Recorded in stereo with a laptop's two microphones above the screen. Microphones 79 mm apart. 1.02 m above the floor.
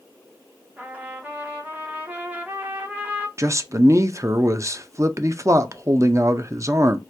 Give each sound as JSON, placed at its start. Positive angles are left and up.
{"t": 0.8, "sound": "a trumpet", "side_deg": -20, "distance_m": 0.7}
{"t": 3.4, "sound": "a man speaking", "side_deg": -40, "distance_m": 0.5}